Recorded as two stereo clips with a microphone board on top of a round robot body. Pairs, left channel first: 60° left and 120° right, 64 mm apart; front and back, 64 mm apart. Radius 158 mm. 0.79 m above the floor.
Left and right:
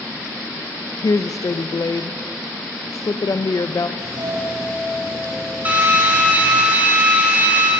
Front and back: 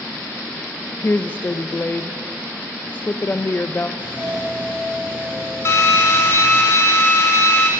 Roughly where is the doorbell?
Behind right.